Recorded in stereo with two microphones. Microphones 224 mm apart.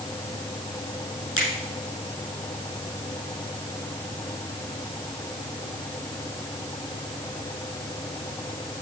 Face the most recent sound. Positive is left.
turn(degrees=70)  # may be behind; listen again after turning